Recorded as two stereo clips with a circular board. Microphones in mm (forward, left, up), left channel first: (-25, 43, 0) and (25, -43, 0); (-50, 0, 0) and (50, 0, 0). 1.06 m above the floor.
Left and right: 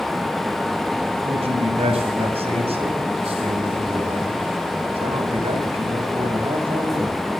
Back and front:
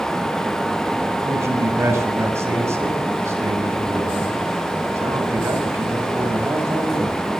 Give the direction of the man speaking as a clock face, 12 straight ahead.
2 o'clock.